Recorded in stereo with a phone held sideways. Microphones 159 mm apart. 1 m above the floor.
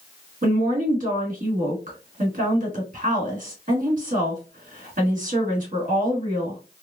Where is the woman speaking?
60° right (ahead or behind), 2 m.